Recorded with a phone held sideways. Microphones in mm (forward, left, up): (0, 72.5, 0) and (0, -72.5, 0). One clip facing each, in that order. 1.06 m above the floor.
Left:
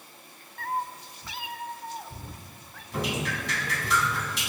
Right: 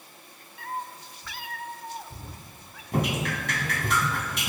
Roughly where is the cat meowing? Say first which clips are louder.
Left 4 dB; left.